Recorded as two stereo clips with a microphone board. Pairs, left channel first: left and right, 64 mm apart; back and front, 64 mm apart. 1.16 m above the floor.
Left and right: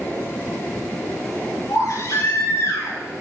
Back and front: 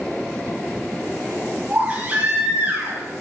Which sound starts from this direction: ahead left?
A baby crying, at 1.7 s.